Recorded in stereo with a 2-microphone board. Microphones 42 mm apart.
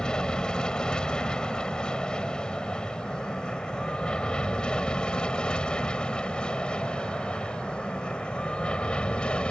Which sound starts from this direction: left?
An aircraft, at 0.0 s.